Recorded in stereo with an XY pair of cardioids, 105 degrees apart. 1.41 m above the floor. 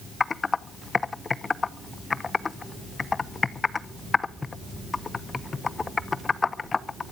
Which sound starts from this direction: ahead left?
Typing on a keyboard, at 0.2 s.